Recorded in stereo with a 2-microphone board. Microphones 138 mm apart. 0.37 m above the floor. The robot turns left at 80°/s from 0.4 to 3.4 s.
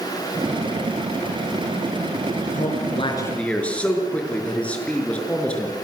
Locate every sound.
2.5 s a man speaking: 80° left, 6 m; by 5.8 s 10° left, 6 m